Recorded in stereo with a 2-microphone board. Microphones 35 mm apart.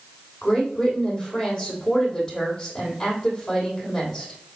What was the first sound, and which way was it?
A woman speaking, 15° left (ahead or behind).